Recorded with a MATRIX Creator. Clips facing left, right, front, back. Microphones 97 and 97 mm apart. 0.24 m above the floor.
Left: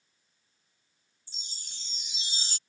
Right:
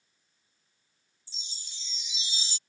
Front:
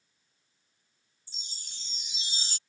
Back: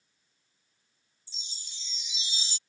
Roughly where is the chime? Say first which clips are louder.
Even, even; ahead left.